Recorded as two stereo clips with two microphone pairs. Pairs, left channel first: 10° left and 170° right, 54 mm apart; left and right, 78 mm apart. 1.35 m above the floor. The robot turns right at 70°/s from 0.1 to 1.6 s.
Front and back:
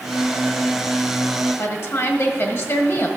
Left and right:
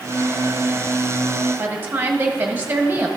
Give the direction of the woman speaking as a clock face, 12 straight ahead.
1 o'clock.